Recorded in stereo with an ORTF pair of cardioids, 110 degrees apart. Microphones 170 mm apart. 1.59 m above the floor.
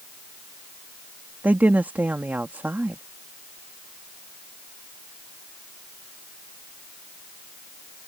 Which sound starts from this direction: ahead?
A woman speaking, at 1.4 s.